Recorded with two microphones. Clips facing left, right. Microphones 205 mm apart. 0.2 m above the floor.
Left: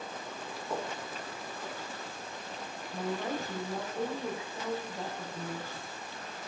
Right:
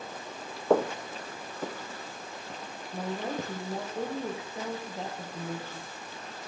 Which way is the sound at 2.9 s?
20° right (ahead or behind).